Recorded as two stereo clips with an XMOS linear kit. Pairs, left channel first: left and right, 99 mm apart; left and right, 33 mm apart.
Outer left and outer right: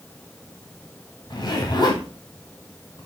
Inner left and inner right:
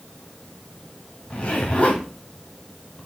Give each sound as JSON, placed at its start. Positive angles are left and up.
{"t": 1.3, "sound": "a zipper", "side_deg": 45, "distance_m": 2.0}